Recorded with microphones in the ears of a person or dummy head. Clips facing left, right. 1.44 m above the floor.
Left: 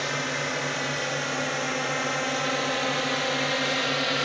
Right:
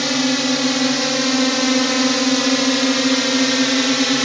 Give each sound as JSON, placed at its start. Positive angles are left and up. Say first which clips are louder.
{"t": 0.0, "sound": "a drone", "louder": "right 12 dB", "side_deg": -70}